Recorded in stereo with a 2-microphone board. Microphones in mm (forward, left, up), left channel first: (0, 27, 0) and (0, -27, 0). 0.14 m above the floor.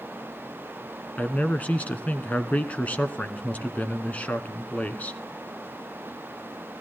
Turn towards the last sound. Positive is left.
turn(degrees=30)  # may be behind; listen again after turning